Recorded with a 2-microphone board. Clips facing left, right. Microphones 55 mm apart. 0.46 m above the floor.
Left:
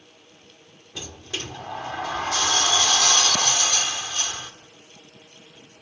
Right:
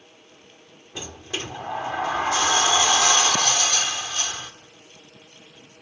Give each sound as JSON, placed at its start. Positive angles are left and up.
{"t": 0.9, "sound": "a sliding door", "side_deg": -20, "distance_m": 1.5}